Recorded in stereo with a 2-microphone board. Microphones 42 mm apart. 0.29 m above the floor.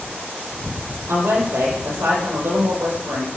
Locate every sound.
1.1 s a woman speaking: 75° right (ahead or behind), 7 m